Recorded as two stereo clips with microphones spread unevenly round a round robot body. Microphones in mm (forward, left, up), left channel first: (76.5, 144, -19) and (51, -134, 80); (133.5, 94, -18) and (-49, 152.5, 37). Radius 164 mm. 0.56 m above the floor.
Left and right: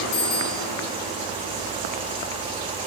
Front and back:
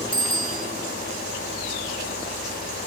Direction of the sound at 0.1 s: 115° left.